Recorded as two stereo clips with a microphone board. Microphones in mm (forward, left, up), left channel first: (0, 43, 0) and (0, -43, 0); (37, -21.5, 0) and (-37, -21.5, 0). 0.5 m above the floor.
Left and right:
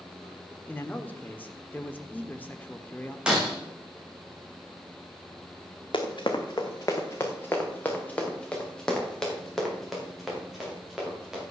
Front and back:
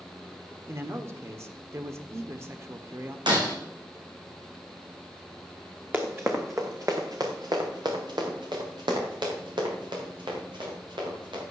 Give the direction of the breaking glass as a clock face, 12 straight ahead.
6 o'clock.